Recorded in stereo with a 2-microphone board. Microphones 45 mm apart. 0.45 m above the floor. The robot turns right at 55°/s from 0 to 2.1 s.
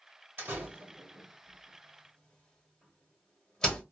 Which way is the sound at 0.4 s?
60° right (ahead or behind).